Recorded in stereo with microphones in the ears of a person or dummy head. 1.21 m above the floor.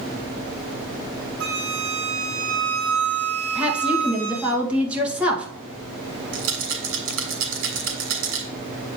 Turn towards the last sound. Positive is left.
turn(degrees=-80)